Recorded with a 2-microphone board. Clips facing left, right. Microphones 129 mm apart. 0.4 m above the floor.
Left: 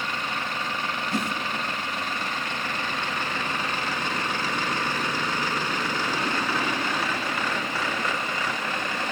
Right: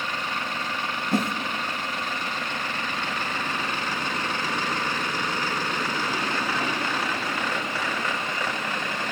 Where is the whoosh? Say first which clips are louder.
Right 5 dB; 55° right (ahead or behind), 1.3 m.